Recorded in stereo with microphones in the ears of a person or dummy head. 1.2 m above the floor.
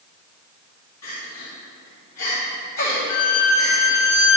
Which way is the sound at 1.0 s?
70° left (ahead or behind).